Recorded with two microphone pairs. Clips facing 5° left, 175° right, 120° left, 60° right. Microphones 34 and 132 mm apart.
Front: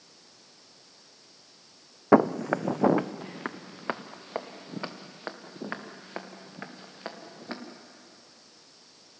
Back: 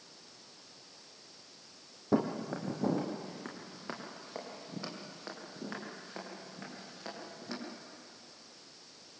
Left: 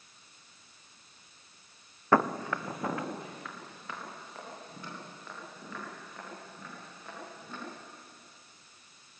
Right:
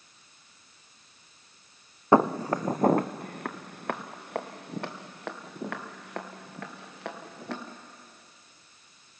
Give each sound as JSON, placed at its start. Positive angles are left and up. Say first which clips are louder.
{"t": 2.1, "sound": "footsteps", "louder": "front 11 dB, right 5 dB", "azimuth_deg": 10, "distance_m": 0.7}